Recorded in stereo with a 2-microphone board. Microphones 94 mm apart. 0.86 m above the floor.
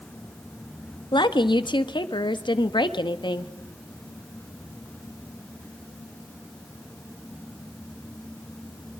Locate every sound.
1.1 s a woman speaking: 55° left (ahead or behind), 1.2 m